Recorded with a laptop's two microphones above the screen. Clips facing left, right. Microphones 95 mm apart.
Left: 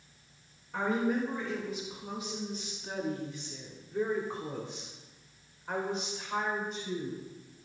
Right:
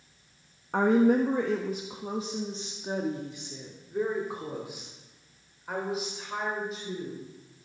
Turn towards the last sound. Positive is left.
turn(degrees=0)  # may be behind; listen again after turning